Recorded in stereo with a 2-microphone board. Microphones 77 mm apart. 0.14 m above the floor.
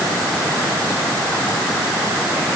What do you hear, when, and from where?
Only background noise.